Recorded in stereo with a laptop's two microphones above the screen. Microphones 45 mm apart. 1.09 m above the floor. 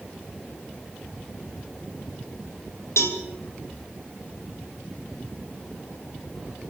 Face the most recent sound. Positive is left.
turn(degrees=85)